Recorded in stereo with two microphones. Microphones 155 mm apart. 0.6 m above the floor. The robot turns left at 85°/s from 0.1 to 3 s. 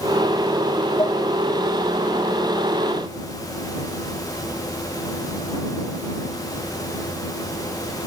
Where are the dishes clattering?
30° left (ahead or behind); by 1.2 s 10° left (ahead or behind).